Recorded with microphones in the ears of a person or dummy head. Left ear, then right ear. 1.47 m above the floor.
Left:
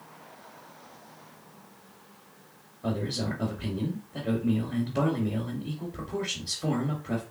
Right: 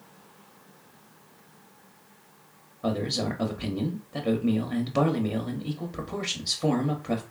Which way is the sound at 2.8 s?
50° right (ahead or behind).